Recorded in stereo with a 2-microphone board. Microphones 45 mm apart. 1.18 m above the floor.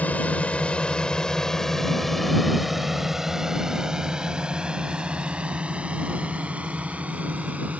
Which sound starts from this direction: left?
A drone, at 0.0 s.